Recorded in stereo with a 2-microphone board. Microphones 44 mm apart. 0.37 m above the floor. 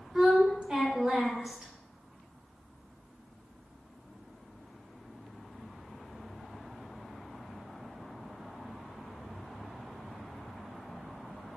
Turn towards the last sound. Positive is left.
turn(degrees=-20)  # may be behind; listen again after turning